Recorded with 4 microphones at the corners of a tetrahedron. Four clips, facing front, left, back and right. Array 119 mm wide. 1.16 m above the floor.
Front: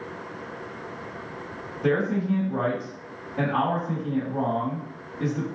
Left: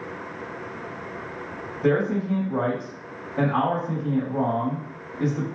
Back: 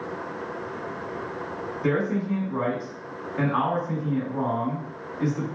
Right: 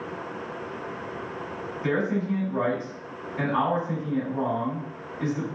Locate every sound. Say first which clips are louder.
1.8 s a man speaking: left 4 dB, front 1 dB; 75° left, 2 m